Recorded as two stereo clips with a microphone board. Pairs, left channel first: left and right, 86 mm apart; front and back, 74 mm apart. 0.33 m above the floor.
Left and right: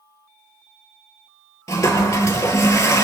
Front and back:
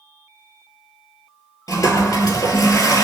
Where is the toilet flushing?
35° left, 1.7 m.